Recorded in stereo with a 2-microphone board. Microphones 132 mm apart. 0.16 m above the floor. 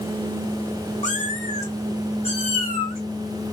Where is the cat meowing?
70° left (ahead or behind), 1.1 m; by 3.5 s 40° left (ahead or behind), 3 m.